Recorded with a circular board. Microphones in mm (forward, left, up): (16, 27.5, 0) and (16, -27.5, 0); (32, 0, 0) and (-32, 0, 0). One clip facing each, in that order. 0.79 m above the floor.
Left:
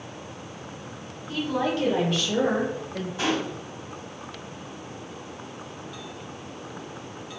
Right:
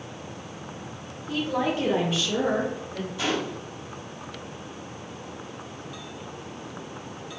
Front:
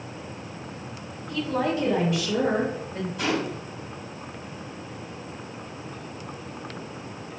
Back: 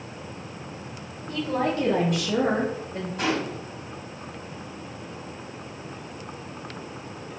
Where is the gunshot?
140° left, 1.9 m.